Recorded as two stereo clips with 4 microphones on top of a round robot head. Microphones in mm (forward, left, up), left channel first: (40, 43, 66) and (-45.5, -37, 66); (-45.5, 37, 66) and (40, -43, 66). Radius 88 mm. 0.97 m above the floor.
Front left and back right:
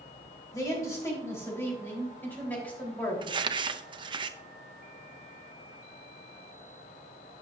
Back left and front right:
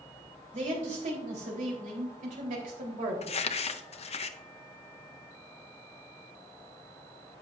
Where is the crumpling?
170° left, 0.7 m.